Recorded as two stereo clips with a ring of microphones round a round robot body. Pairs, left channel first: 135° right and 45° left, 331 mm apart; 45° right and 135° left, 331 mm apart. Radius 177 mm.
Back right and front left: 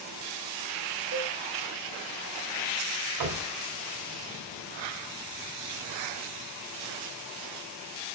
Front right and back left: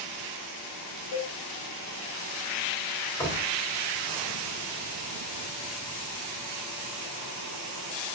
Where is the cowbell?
Straight ahead, 4.5 m.